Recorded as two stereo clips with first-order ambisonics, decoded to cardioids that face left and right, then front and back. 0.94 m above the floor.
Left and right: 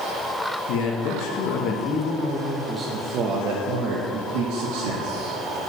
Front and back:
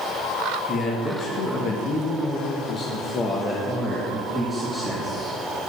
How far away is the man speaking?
About 1.5 m.